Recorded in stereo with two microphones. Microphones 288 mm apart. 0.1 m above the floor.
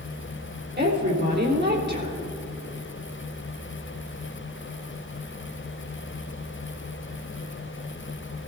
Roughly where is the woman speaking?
Right.